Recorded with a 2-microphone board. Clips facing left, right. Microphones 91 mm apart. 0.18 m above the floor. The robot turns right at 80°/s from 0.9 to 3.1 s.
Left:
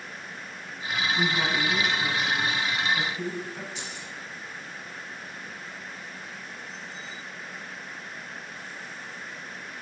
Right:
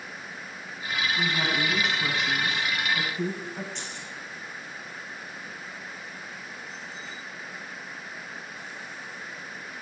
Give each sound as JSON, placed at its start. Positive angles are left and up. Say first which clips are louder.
{"t": 1.2, "sound": "a woman speaking", "louder": "left 1 dB", "azimuth_deg": 170, "distance_m": 1.3}
{"t": 3.8, "sound": "keys jangling", "louder": "even", "side_deg": 5, "distance_m": 3.5}